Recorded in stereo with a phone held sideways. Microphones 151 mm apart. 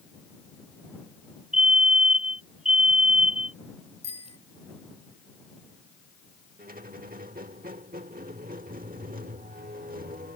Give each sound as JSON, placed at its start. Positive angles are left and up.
{"t": 1.5, "sound": "a fire alarm", "side_deg": -55}
{"t": 4.0, "sound": "a bicycle bell", "side_deg": -45}
{"t": 6.6, "sound": "a squeak", "side_deg": -70}